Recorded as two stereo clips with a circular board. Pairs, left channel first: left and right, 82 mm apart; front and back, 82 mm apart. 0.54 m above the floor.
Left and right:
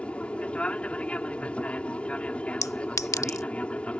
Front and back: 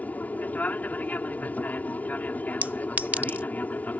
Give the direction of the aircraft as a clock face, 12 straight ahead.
11 o'clock.